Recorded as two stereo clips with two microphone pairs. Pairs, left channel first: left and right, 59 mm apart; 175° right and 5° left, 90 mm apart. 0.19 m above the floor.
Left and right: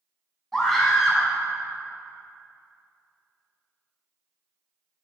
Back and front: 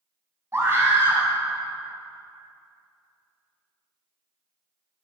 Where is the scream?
10° left, 1.8 m.